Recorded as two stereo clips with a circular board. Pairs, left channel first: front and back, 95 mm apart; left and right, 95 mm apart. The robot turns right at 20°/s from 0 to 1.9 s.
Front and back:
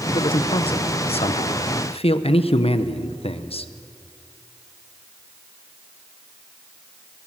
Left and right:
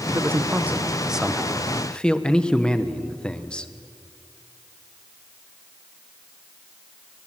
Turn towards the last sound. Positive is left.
turn(degrees=10)